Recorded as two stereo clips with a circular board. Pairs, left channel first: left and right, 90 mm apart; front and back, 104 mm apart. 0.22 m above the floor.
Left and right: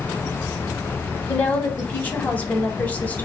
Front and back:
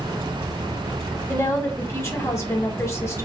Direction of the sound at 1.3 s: 35° left.